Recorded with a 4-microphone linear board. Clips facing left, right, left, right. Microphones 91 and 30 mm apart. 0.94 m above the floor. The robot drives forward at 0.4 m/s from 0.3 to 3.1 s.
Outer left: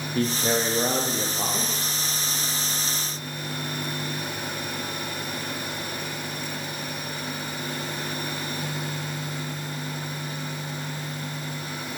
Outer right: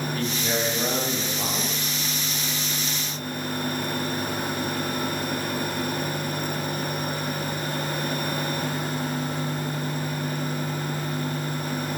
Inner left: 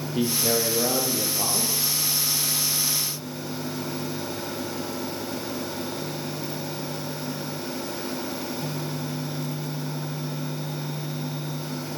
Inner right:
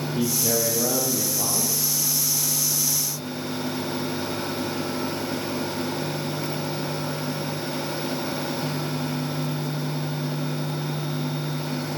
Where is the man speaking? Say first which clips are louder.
Outer left 6 dB, inner left 1 dB; 30° left (ahead or behind), 0.7 m; by 1.9 s 20° left (ahead or behind), 1.3 m.